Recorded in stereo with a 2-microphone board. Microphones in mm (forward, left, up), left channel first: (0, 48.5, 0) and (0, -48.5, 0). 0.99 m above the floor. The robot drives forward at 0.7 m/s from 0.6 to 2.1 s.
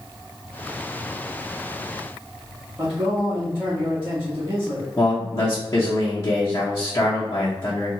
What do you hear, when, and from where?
2.8 s a man speaking: 25° right (ahead or behind), 1.3 m
5.0 s a man speaking: 35° left (ahead or behind), 0.9 m